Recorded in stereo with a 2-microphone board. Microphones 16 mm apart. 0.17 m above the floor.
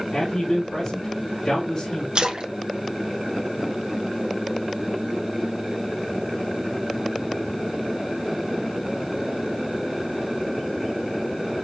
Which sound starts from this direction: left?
A man speaking, at 0.1 s.